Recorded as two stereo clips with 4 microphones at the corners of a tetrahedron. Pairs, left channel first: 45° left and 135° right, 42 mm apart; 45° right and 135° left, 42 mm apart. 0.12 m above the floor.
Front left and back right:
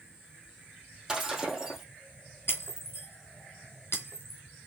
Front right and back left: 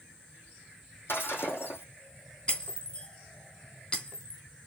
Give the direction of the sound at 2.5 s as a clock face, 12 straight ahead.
11 o'clock.